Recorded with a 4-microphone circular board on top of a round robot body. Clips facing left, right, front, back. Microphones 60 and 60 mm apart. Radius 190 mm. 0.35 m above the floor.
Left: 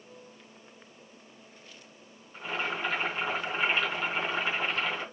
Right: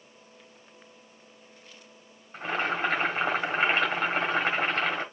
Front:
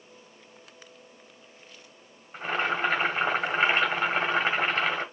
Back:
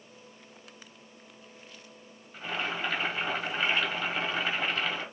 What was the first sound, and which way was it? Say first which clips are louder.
Boiling: right 4 dB, front 6 dB; 50° right.